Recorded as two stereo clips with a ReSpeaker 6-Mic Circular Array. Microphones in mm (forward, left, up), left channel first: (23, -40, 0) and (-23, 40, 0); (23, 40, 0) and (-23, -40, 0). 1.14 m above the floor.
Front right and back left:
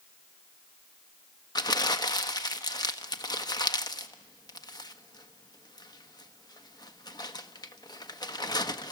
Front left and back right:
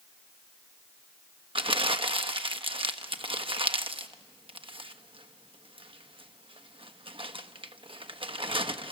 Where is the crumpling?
105° right, 1.1 m.